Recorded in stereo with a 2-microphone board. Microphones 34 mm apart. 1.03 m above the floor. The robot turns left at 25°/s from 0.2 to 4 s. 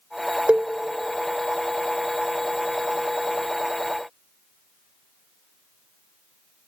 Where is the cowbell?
45° right (ahead or behind), 0.6 m; by 0.7 s 40° right (ahead or behind), 0.6 m.